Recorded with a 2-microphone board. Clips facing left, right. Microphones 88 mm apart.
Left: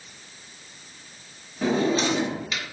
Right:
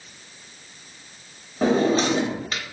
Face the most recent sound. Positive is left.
turn(degrees=-40)  # may be behind; listen again after turning